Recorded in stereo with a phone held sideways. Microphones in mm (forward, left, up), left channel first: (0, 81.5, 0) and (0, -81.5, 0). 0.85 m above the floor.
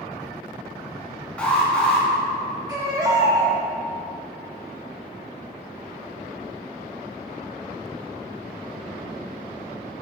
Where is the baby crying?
20° right (ahead or behind), 1.2 m.